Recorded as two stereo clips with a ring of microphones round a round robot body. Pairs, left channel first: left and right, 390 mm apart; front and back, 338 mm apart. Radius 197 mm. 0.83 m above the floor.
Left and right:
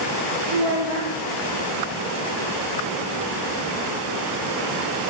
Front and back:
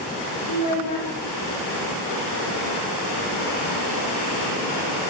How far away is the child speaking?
About 2 m.